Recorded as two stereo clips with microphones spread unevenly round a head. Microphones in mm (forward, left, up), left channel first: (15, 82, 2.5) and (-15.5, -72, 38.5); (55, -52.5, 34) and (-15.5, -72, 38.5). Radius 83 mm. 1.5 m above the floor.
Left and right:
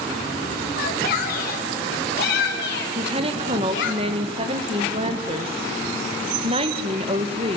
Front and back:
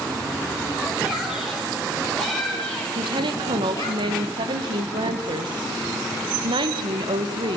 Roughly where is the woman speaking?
Behind.